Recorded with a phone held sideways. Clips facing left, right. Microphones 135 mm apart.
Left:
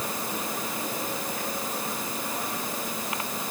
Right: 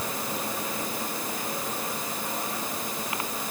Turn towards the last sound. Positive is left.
No sound to turn to.